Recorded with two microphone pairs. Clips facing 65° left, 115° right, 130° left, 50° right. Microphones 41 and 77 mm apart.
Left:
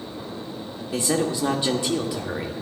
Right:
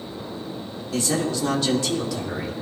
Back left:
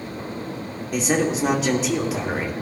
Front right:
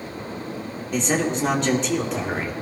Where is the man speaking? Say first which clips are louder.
Left 1 dB, back left 1 dB; 50° left, 1.4 m.